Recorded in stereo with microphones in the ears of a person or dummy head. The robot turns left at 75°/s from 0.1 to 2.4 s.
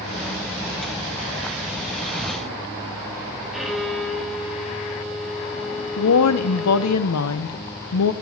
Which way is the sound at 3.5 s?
Centre (ahead or behind).